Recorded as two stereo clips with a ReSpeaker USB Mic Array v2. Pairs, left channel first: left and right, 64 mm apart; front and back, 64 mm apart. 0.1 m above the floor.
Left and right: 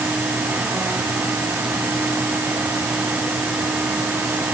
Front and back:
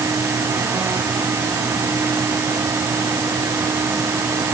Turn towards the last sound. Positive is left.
No sound to turn to.